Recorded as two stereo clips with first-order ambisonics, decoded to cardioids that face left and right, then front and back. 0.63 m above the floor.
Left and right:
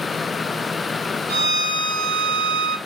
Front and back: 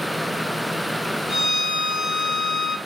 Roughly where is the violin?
Right.